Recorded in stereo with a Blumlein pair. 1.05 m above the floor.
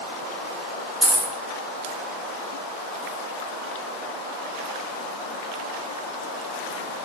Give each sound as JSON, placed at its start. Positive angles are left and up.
{"t": 1.0, "sound": "a dropped coin", "azimuth_deg": -5, "distance_m": 0.9}